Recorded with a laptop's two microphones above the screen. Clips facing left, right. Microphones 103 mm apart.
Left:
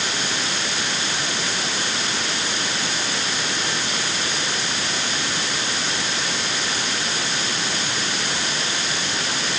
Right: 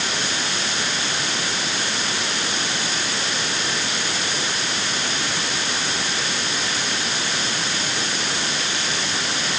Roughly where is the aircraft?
I don't hear an aircraft.